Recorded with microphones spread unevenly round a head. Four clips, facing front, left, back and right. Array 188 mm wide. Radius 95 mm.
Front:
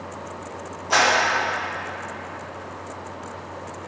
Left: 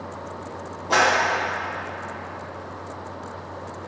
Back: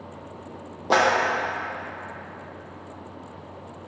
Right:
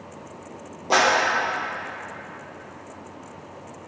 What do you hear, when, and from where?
0.9 s a clap: 160° right, 1.1 m